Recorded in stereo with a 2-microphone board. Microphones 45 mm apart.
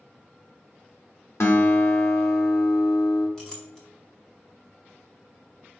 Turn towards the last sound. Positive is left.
turn(degrees=15)  # may be behind; listen again after turning